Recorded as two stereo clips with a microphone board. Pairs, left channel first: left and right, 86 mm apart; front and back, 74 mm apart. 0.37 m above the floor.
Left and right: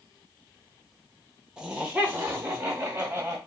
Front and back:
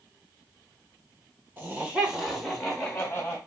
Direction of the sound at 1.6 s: 155° right.